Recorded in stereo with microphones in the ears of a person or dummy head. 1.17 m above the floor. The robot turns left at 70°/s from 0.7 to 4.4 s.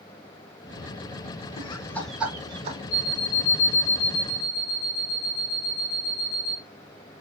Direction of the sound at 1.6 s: 35° left (ahead or behind).